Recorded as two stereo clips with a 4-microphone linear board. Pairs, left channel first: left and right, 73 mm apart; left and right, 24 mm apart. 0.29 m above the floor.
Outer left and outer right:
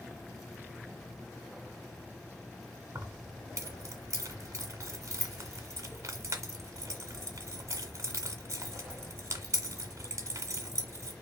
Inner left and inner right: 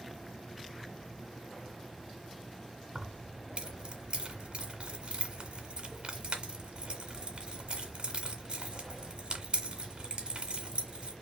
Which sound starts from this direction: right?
Keys jangling, at 3.0 s.